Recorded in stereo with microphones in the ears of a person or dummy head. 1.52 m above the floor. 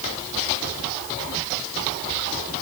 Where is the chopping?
No chopping in this recording.